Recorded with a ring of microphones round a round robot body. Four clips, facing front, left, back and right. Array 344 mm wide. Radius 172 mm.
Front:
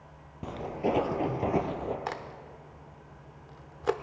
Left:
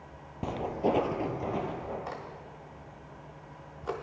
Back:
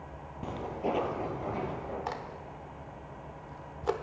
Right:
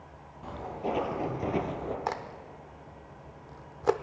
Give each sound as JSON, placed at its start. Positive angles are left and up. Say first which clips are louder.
{"t": 0.4, "sound": "footsteps", "louder": "left 5 dB, front 3 dB", "azimuth_deg": 90, "distance_m": 1.3}
{"t": 2.1, "sound": "a crack", "louder": "right 5 dB, even", "azimuth_deg": -75, "distance_m": 0.7}